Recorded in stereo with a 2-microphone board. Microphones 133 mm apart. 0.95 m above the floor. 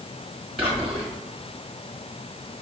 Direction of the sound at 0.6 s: 40° right (ahead or behind).